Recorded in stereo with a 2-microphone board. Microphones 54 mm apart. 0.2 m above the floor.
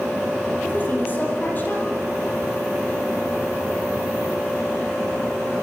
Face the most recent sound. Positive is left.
turn(degrees=35)  # may be behind; listen again after turning